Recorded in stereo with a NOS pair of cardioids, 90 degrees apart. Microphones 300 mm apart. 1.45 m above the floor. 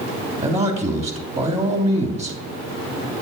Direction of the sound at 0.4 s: 20° right.